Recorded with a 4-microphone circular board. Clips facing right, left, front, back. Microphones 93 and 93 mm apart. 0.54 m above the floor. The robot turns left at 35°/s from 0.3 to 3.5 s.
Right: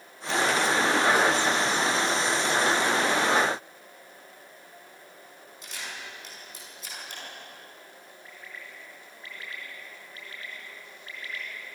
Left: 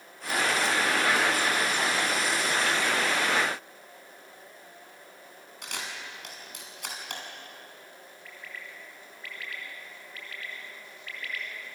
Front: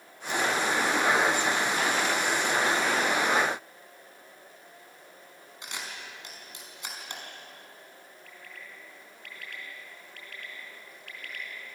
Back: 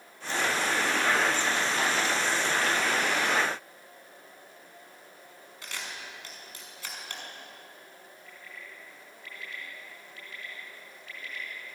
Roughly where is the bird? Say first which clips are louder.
Left 1 dB, even; ahead right.